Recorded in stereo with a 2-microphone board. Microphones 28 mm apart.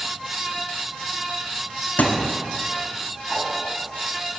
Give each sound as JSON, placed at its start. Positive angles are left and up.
{"t": 2.0, "sound": "a thud", "side_deg": 70, "distance_m": 1.0}
{"t": 3.3, "sound": "a whoosh", "side_deg": 15, "distance_m": 3.0}